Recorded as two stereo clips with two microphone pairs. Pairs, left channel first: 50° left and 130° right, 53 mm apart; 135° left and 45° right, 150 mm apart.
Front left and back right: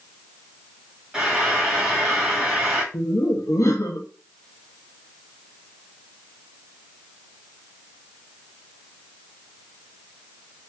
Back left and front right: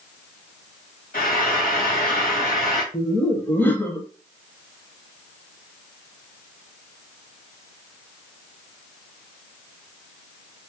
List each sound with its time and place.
1.1 s frying: 150° left, 1.4 m
2.9 s laughter: 60° left, 0.7 m